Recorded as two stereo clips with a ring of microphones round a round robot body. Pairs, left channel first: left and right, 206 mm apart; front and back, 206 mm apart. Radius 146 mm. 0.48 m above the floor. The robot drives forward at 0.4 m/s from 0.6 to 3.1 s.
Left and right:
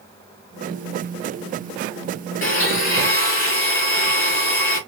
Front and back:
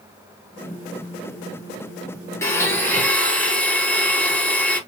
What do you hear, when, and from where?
2.4 s a blender: 75° left, 2.5 m; by 4.8 s 85° left, 2.5 m